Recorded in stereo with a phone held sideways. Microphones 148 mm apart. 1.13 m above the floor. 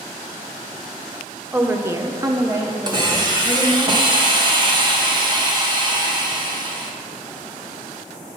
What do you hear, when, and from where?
1.5 s a woman speaking: 10° right (ahead or behind), 0.8 m
2.9 s a hiss: 30° right (ahead or behind), 1.3 m